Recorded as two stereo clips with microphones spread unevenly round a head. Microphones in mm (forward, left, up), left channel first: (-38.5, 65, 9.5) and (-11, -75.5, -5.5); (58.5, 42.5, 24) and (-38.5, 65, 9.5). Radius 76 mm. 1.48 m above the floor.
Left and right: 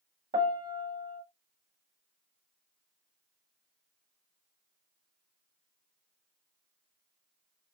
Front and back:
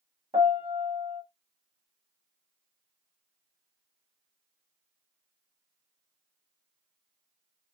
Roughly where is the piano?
Behind right.